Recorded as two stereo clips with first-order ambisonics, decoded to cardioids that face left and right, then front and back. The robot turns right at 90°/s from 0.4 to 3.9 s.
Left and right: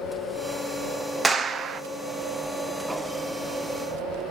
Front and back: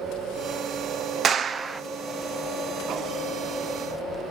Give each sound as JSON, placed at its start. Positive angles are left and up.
{"t": 1.2, "sound": "a clap", "azimuth_deg": -160, "distance_m": 0.6}